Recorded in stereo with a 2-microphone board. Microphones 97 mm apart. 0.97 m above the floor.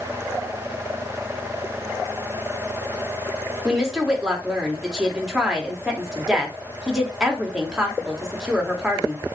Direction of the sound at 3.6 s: 5° right (ahead or behind).